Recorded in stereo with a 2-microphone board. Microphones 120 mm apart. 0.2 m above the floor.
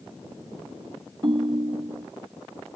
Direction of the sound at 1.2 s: 40° right (ahead or behind).